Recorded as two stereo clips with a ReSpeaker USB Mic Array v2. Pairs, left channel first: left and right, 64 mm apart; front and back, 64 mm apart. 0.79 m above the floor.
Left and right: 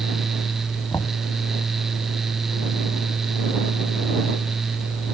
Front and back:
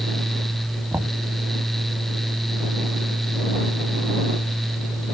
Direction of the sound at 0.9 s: 125° left.